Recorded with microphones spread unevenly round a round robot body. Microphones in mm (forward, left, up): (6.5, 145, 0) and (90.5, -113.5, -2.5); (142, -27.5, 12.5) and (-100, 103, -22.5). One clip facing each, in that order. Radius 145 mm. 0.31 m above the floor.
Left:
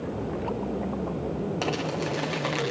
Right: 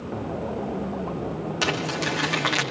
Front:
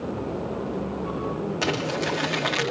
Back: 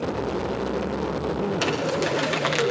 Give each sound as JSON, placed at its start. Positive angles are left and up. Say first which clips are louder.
{"t": 1.6, "sound": "crumpling", "louder": "right 1 dB, back 2 dB", "azimuth_deg": -140, "distance_m": 6.0}